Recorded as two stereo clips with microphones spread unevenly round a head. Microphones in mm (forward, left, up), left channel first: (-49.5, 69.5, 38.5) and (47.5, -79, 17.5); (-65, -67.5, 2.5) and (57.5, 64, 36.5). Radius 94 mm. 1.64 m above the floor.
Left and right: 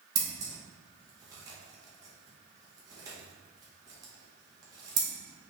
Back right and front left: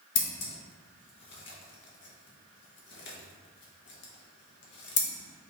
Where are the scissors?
125° right, 1.0 m.